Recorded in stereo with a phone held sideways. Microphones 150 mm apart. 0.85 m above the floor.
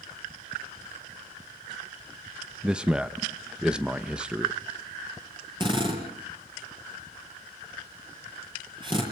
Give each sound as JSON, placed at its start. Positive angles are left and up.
{"t": 2.6, "sound": "a man speaking", "side_deg": -5, "distance_m": 0.8}
{"t": 5.6, "sound": "a drill", "side_deg": -30, "distance_m": 8.0}